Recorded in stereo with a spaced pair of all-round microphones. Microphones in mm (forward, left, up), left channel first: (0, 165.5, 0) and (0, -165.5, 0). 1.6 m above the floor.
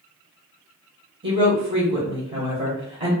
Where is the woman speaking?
35° right (ahead or behind), 1.0 m.